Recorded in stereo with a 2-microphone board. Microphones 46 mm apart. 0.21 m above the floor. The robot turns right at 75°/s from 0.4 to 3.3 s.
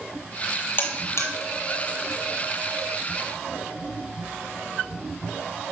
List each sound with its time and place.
0.8 s a buzzer: 45° left (ahead or behind), 1.2 m; by 1.3 s 85° left, 1.2 m